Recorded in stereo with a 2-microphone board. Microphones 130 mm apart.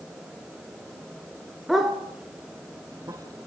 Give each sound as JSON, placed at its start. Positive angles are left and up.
{"t": 1.7, "sound": "a dog barking", "side_deg": 0, "distance_m": 2.5}